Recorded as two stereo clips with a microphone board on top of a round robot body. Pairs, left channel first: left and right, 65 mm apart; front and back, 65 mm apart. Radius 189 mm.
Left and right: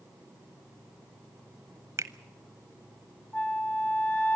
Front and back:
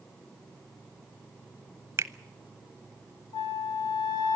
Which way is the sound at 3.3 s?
30° left.